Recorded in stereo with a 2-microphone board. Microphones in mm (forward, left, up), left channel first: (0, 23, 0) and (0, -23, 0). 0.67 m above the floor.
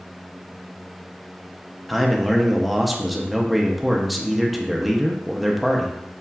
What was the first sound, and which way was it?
A man speaking, centre (ahead or behind).